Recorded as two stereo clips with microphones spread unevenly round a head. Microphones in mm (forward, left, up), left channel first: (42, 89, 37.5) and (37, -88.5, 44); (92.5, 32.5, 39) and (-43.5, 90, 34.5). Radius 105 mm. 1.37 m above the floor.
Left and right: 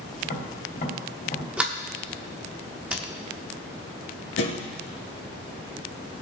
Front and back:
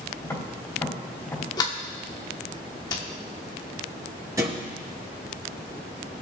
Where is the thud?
90° left, 4.5 m.